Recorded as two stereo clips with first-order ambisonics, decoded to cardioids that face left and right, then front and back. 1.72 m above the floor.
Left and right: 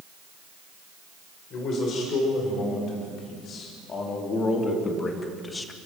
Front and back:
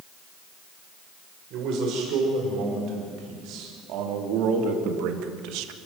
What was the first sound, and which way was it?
A man speaking, 140° left.